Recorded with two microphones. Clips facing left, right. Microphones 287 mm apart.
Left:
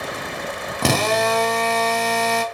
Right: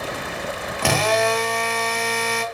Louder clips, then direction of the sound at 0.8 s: Left 1 dB; 45° left (ahead or behind).